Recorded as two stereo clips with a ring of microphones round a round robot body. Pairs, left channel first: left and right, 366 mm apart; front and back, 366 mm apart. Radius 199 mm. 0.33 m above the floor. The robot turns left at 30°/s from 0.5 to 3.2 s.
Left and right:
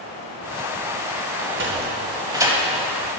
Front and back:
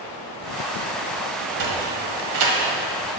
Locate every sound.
1.4 s a sliding door: 140° right, 1.2 m; by 2.6 s 175° right, 1.2 m